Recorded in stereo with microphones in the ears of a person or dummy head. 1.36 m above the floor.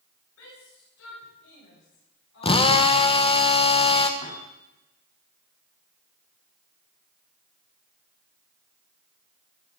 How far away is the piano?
About 7.5 m.